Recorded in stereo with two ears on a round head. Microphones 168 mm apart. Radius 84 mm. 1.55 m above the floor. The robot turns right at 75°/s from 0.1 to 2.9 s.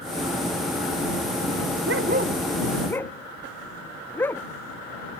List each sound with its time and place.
1.9 s a dog barking: 65° right (ahead or behind); by 4.4 s 10° left (ahead or behind)